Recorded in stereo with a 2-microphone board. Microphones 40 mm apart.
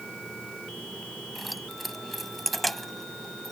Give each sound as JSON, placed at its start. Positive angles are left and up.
{"t": 1.4, "sound": "keys jangling", "side_deg": 0}